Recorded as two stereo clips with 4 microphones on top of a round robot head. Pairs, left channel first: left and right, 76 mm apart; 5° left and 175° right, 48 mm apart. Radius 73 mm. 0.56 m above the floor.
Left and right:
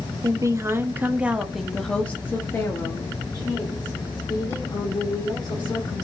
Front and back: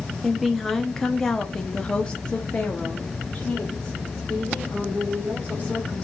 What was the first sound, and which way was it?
A woman speaking, 90° right.